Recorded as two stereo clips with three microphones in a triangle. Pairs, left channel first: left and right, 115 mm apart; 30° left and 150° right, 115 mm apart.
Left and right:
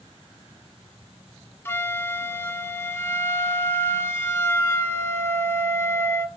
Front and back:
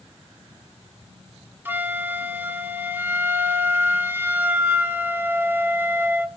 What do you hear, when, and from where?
1.6 s a flute: 150° left, 1.4 m